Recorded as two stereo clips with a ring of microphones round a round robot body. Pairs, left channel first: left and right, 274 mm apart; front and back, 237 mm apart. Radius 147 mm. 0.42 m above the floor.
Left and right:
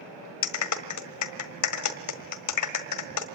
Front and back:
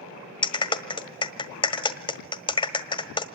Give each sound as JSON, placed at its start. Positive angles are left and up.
{"t": 0.4, "sound": "a clap", "azimuth_deg": 70, "distance_m": 1.6}